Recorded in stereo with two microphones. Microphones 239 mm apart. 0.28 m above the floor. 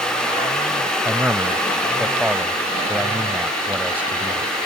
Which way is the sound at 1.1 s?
5° right (ahead or behind).